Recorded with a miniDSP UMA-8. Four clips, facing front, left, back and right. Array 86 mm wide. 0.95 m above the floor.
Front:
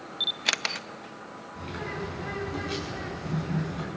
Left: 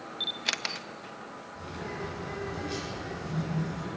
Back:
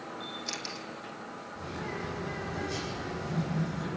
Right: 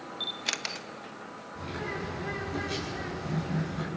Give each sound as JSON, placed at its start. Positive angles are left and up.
{"t": 0.2, "sound": "a camera shutter", "azimuth_deg": 10, "distance_m": 1.0}
{"t": 1.5, "sound": "a bird", "azimuth_deg": -30, "distance_m": 8.5}